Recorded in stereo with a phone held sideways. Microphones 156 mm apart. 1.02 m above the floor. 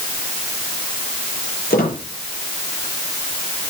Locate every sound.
1.7 s a squeak: 85° left, 8 m